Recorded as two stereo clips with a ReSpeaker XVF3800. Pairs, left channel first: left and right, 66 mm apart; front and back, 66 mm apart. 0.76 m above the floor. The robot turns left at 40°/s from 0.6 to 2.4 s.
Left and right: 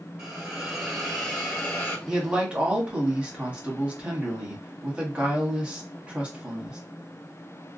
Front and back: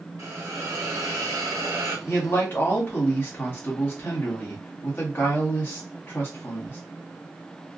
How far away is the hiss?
About 1.3 m.